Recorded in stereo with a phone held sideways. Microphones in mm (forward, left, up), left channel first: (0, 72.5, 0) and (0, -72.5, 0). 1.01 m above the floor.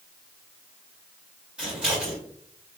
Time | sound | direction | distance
1.6 | scissors | 5° right (ahead or behind) | 1.6 m